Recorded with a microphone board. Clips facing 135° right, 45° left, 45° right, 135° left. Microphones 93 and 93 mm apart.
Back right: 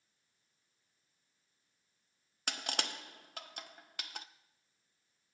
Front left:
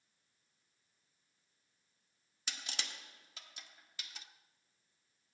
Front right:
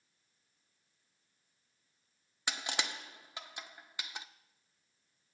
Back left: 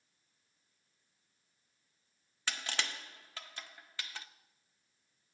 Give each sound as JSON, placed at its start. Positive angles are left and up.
{"t": 2.5, "sound": "crushing", "azimuth_deg": -115, "distance_m": 0.6}